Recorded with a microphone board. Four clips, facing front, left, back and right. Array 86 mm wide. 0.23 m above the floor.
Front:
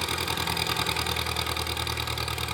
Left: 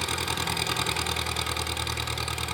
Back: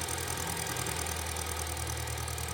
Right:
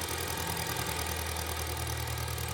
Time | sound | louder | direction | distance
0.0 | an engine running | left 6 dB, front 7 dB | 40° left | 2 m